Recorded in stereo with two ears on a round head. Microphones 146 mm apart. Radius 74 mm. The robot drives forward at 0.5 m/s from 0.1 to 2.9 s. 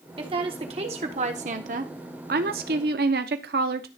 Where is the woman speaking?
30° right (ahead or behind), 1.7 m; by 3.9 s 70° right (ahead or behind), 1.0 m.